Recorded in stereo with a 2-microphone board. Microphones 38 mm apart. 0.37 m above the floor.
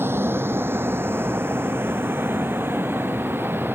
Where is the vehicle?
80° right; by 3.8 s 70° right (ahead or behind).